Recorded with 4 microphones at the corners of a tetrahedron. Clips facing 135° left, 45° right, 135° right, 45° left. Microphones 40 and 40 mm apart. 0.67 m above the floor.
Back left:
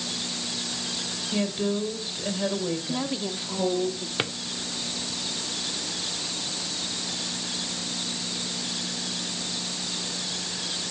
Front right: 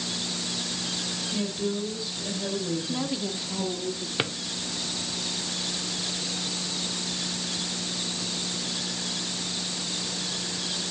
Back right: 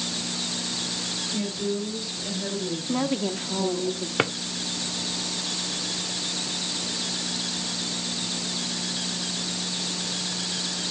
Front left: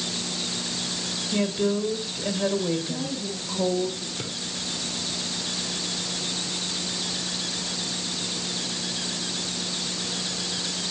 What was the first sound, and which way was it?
A woman speaking, 85° left.